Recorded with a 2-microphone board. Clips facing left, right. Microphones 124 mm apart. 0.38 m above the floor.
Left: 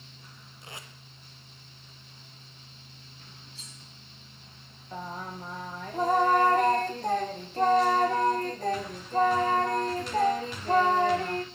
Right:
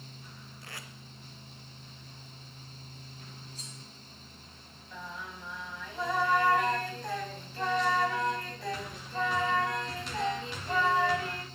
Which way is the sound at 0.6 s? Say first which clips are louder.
Left 2 dB; 20° left (ahead or behind).